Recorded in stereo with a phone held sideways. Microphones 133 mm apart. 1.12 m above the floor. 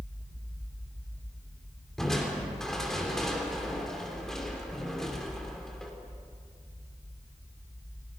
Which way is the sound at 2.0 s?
5° left (ahead or behind).